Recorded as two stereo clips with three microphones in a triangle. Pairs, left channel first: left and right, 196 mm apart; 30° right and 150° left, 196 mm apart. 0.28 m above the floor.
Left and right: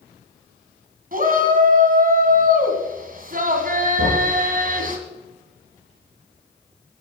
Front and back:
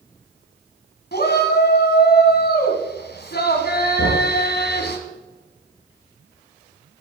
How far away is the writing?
I don't hear writing.